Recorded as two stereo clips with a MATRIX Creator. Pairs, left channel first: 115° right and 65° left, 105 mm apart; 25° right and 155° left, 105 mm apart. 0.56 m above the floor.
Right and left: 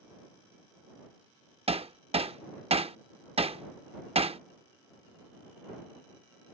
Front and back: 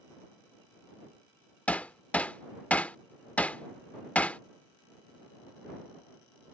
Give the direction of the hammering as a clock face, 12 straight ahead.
10 o'clock.